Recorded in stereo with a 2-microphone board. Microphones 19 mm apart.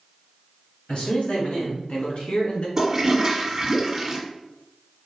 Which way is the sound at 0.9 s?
75° left (ahead or behind).